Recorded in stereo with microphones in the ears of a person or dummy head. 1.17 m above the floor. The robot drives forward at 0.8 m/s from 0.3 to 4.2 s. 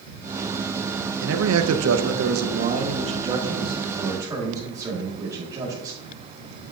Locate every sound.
1.2 s a man speaking: 65° right (ahead or behind), 0.8 m; by 6.0 s 20° right (ahead or behind), 2 m